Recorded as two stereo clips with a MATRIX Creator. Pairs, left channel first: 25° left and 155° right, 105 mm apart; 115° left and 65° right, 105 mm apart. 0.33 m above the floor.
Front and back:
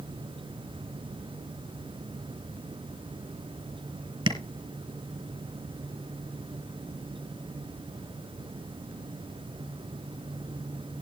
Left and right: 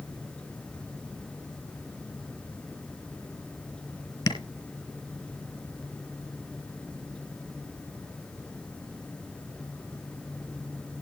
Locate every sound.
4.3 s tapping: 160° left, 2.5 m